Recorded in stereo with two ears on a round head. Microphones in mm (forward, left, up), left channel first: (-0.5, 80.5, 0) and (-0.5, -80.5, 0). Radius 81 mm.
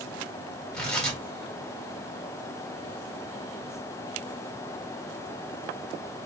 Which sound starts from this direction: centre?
Tearing paper, at 0.7 s.